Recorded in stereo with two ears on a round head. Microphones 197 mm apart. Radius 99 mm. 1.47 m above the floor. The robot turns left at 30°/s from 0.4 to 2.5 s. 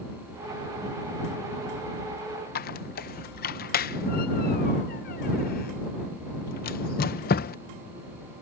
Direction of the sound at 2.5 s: 40° left (ahead or behind).